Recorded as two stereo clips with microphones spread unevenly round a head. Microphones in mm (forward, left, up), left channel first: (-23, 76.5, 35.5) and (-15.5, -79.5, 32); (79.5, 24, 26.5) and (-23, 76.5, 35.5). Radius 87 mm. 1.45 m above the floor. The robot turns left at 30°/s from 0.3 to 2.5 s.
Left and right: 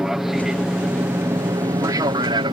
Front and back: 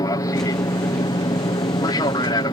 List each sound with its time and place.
0.0 s an aircraft: straight ahead; by 2.5 s 45° right